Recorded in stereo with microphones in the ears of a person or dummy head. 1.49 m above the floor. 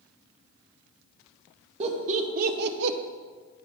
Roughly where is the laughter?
Right.